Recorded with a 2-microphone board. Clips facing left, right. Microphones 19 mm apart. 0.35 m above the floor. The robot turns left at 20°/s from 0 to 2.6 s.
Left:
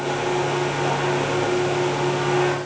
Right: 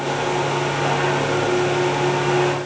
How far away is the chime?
I don't hear a chime.